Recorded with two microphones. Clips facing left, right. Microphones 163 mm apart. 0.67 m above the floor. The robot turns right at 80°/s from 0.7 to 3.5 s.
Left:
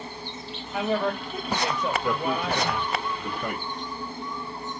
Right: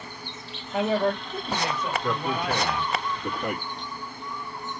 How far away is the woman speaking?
About 2 m.